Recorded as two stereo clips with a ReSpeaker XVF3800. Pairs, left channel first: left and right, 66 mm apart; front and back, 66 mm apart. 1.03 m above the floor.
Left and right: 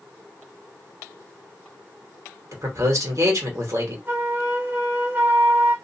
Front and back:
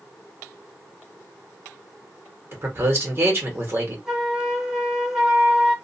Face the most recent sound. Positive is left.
turn(degrees=-105)